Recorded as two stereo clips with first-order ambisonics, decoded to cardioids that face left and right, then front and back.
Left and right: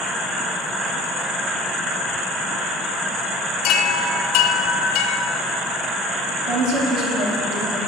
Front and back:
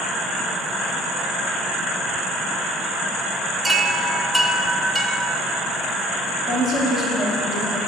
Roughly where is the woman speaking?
Right.